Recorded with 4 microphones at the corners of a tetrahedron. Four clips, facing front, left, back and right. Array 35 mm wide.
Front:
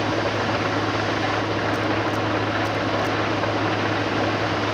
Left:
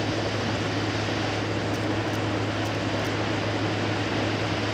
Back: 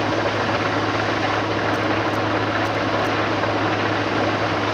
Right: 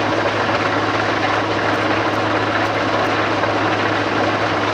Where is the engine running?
95° right.